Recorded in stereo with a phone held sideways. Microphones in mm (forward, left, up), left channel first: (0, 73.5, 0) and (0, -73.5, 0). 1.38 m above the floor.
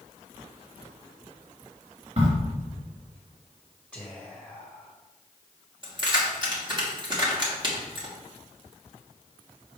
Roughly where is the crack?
Right.